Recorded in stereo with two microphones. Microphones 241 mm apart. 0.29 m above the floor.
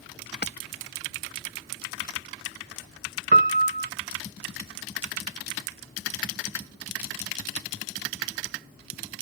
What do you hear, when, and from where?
0.4 s hammering: 45° left (ahead or behind)
3.3 s a piano: 35° right (ahead or behind)